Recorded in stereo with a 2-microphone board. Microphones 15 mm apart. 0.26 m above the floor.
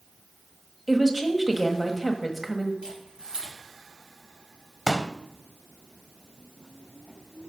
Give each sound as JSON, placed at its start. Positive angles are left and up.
{"t": 0.9, "sound": "a woman speaking", "side_deg": -15, "distance_m": 1.3}
{"t": 2.8, "sound": "a camera shutter", "side_deg": -75, "distance_m": 6.0}
{"t": 4.9, "sound": "a pop", "side_deg": -25, "distance_m": 0.6}